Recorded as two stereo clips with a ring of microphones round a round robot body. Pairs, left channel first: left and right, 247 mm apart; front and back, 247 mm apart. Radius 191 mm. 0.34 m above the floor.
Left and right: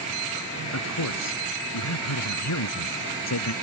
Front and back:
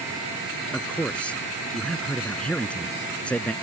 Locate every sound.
0.7 s a man speaking: 85° left